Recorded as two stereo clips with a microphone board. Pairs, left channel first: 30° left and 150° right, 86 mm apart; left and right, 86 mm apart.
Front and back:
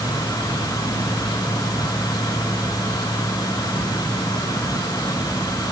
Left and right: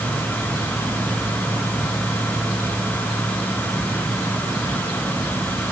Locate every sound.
Only background noise.